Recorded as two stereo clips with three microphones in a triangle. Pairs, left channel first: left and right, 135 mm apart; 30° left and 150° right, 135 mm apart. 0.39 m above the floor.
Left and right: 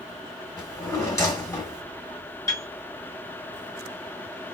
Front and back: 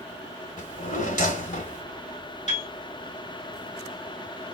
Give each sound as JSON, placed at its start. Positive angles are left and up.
{"t": 0.6, "sound": "a drawer", "azimuth_deg": 25, "distance_m": 1.4}
{"t": 2.5, "sound": "a piano", "azimuth_deg": 30, "distance_m": 1.5}